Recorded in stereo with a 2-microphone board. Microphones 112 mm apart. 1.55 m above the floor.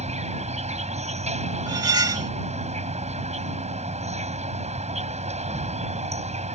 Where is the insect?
75° right (ahead or behind).